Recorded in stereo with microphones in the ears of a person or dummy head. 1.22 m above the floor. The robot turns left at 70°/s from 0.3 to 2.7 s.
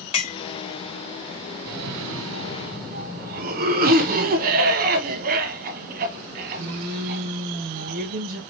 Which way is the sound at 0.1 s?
35° left (ahead or behind).